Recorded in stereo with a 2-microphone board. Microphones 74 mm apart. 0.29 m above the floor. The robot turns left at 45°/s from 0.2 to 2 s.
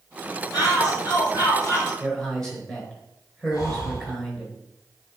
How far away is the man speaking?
About 4 m.